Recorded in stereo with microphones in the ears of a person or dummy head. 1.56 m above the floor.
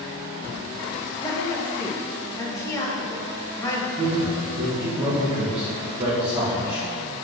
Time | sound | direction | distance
1.2 | a woman speaking | 15° left (ahead or behind) | 1.8 m
4.0 | a man speaking | 35° right (ahead or behind) | 2.5 m